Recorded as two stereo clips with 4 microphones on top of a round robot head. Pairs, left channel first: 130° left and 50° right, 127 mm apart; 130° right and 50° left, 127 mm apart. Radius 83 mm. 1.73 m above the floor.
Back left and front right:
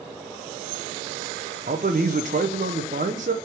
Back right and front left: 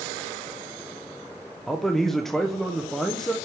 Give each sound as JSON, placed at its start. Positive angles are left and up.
{"t": 1.7, "sound": "a man speaking", "azimuth_deg": -45, "distance_m": 0.8}